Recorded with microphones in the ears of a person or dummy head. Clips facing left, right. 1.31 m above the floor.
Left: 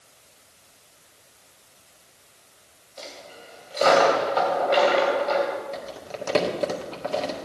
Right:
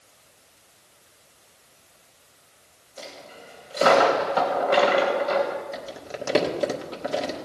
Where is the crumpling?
15° right (ahead or behind), 1.6 m.